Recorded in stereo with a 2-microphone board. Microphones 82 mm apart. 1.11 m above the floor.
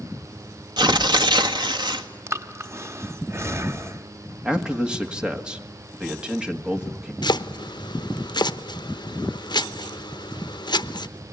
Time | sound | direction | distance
0.8 | tearing paper | 60° right (ahead or behind) | 1.8 m
2.3 | breathing | 35° right (ahead or behind) | 0.8 m
4.5 | a man speaking | 10° right (ahead or behind) | 1.9 m
7.2 | chopping | 65° left (ahead or behind) | 0.9 m